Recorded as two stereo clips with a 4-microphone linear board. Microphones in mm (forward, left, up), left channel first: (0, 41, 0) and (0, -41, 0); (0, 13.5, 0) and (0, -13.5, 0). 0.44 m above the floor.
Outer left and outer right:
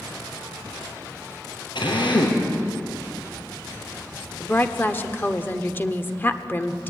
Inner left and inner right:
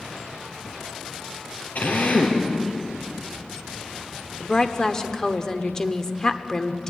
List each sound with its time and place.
1.8 s a drill: 90° left, 5 m
4.4 s a woman speaking: 25° left (ahead or behind), 1.2 m